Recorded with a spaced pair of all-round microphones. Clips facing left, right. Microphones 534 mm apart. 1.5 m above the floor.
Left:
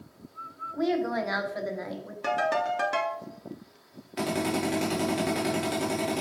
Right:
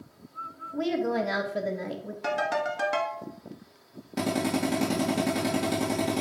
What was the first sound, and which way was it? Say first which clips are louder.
A woman speaking: even; 50° right (ahead or behind).